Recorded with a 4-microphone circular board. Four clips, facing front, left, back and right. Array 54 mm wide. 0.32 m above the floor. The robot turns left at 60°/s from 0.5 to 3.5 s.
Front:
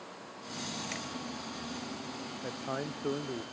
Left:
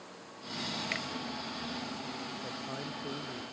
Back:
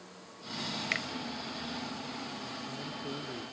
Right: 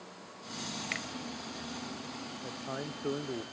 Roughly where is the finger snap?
Behind.